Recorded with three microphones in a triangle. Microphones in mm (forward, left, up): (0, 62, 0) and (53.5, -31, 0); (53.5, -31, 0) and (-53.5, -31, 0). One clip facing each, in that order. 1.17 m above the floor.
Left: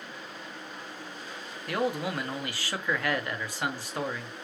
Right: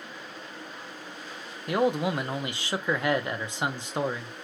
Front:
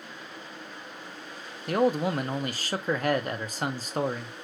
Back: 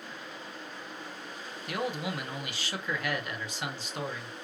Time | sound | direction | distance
1.7 | a man speaking | straight ahead | 0.7 m